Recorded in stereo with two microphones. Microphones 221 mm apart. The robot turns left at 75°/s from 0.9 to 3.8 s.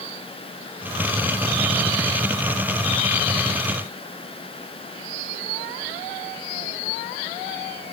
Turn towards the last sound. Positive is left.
No sound to turn to.